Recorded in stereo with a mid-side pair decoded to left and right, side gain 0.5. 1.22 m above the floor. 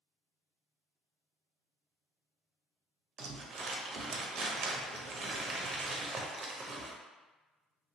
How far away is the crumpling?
About 0.7 m.